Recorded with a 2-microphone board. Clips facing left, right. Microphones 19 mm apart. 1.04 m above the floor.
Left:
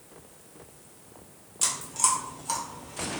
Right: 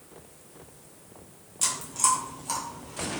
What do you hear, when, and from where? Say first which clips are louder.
1.6 s chewing: right 1 dB; 5° left (ahead or behind), 0.7 m